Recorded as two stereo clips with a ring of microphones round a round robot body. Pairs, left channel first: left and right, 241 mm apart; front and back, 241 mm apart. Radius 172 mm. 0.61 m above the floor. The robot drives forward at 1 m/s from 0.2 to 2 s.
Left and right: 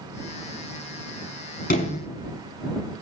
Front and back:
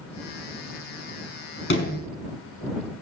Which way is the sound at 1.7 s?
40° left.